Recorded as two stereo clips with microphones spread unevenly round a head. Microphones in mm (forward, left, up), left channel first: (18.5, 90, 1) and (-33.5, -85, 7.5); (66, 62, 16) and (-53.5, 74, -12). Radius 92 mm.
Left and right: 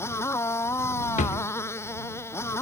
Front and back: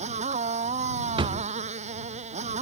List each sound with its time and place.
0.0 s a motorcycle: 150° left
1.2 s a drawer: 125° left